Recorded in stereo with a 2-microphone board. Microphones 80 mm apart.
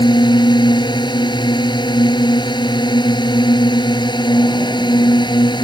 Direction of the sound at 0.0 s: 70° left (ahead or behind).